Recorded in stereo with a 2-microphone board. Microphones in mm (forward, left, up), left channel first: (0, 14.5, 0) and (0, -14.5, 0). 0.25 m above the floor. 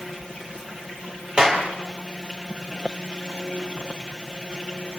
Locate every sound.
1.4 s a clap: 30° right (ahead or behind), 4.5 m